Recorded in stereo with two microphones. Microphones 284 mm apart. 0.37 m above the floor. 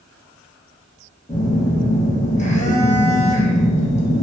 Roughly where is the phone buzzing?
Left.